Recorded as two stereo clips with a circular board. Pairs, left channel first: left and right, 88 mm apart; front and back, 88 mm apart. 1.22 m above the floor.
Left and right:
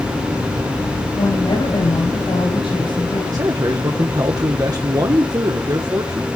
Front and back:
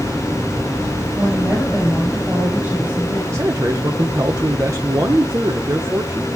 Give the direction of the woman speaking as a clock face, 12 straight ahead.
8 o'clock.